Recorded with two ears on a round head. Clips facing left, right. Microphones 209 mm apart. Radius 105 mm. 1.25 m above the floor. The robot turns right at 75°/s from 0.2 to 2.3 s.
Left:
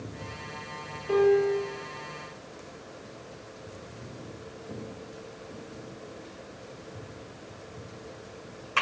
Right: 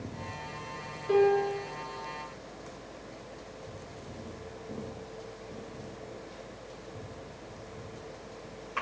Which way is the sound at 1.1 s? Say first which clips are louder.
Left 3 dB; 25° right.